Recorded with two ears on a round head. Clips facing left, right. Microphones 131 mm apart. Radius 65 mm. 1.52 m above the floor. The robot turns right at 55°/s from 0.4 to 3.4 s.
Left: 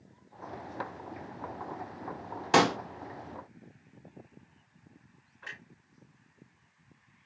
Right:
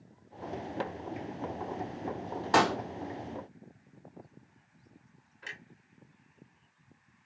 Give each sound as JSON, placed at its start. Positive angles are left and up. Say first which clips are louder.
{"t": 2.5, "sound": "a pop", "louder": "left 1 dB", "side_deg": 30, "distance_m": 1.9}
{"t": 5.4, "sound": "a clunk", "louder": "even", "side_deg": -30, "distance_m": 2.5}